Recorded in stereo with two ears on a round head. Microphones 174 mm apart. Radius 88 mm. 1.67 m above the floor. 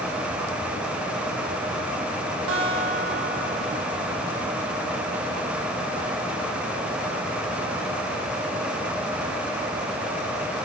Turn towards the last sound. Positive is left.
turn(degrees=-80)